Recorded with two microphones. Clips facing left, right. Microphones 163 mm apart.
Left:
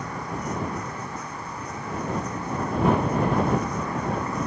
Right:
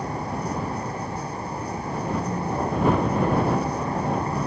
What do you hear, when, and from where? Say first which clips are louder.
0.0 s a vehicle: right 3 dB; 30° right (ahead or behind)